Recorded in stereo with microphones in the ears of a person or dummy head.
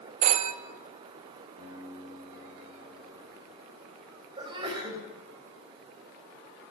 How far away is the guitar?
About 8 m.